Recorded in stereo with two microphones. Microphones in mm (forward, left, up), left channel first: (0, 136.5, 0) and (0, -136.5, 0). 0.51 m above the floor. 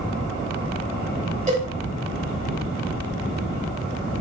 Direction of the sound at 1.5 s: 25° right (ahead or behind).